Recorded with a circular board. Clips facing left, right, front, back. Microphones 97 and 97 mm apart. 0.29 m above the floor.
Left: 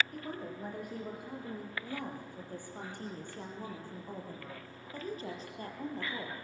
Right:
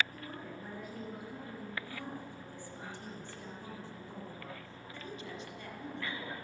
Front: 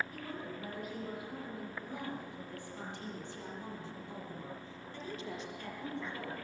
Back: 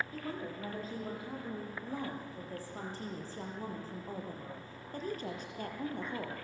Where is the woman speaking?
120° left, 8 m; by 6.3 s 145° left, 5.5 m.